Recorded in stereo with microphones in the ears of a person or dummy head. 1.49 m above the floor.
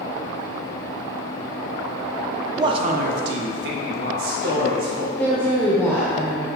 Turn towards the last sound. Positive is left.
turn(degrees=5)  # may be behind; listen again after turning